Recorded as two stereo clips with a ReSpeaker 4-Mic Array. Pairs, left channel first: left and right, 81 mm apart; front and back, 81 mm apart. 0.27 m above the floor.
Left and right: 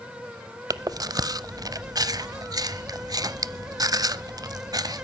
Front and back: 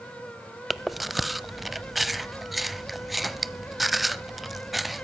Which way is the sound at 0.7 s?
90° right.